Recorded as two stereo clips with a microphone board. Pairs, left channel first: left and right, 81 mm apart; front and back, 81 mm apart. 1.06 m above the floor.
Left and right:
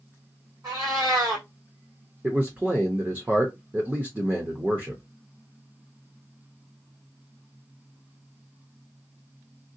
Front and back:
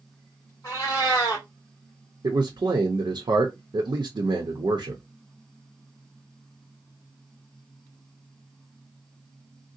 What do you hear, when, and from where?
0.6 s a cat meowing: 50° right, 2 m
2.2 s a man speaking: 160° right, 0.7 m